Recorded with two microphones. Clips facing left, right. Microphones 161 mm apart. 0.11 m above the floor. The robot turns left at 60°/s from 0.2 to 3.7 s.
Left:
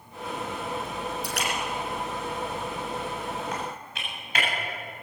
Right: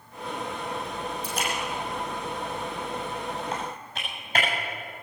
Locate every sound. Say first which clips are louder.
1.2 s a splash: even; 75° left (ahead or behind), 3.5 m; by 3.4 s 35° right (ahead or behind), 3.5 m
3.5 s typing on a keyboard: right 1 dB; 25° right (ahead or behind), 7 m; by 4.5 s 35° right (ahead or behind), 7 m